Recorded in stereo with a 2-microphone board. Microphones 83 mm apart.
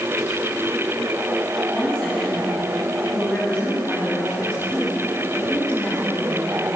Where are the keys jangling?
No keys jangling in this recording.